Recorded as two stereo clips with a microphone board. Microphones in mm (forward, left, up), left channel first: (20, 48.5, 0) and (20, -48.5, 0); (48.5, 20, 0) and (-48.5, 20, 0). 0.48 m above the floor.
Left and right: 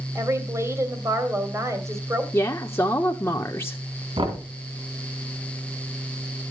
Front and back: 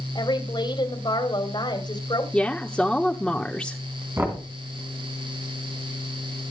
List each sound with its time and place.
0.1 s a woman speaking: 30° right, 3 m
2.3 s a woman speaking: 70° left, 0.9 m
4.2 s knocking: 115° right, 3.5 m